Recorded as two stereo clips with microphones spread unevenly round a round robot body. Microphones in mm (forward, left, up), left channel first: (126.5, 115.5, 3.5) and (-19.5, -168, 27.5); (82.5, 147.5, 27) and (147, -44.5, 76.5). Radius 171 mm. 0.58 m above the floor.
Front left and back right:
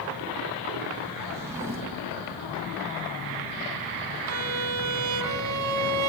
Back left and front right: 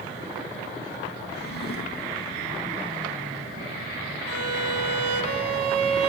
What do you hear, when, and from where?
1.3 s a drawer: 160° left, 2.5 m
4.3 s a violin: 80° right, 2.5 m